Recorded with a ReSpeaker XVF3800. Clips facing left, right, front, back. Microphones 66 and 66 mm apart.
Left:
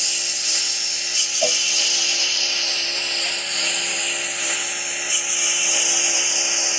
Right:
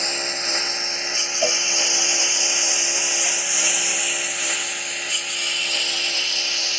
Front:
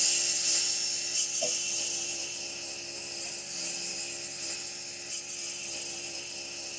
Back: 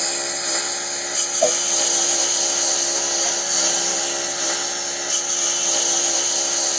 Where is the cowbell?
Straight behind.